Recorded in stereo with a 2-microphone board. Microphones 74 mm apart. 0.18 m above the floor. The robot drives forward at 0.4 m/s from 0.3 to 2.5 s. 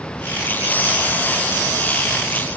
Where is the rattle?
I don't hear a rattle.